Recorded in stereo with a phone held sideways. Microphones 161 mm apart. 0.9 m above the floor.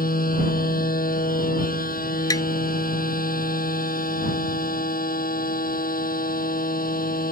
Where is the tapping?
20° left (ahead or behind).